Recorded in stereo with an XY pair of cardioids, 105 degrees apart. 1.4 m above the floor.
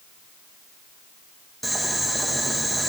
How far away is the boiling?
About 1.9 m.